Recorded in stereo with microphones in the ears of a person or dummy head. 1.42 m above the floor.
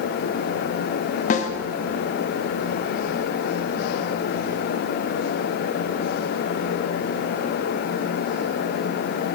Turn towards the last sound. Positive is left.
turn(degrees=40)  # may be behind; listen again after turning